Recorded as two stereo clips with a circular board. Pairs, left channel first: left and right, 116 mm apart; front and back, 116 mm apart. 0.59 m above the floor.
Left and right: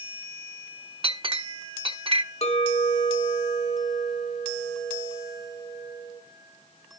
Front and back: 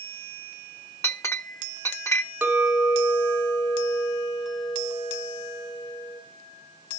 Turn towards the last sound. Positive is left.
turn(degrees=100)